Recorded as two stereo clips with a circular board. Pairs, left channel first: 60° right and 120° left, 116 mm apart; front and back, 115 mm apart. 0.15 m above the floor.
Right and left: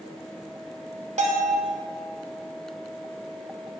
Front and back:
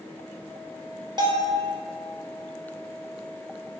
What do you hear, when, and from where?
1.2 s a bell: 130° left, 0.9 m